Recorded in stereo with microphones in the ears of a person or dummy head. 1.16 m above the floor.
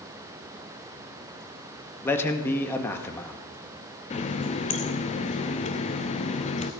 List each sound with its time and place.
2.0 s a man speaking: 15° left (ahead or behind), 1.7 m
4.1 s a running tap: 30° left (ahead or behind), 0.8 m